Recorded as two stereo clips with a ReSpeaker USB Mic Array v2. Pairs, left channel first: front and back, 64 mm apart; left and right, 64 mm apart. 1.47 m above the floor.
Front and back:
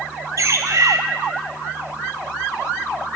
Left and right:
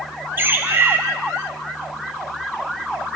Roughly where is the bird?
Behind right.